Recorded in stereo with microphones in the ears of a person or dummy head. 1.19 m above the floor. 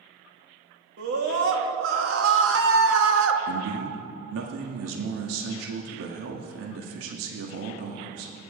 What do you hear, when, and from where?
1.0 s a scream: 70° right (ahead or behind), 2.5 m; by 3.4 s 75° right (ahead or behind), 1.9 m
3.5 s a man speaking: 80° right, 1.8 m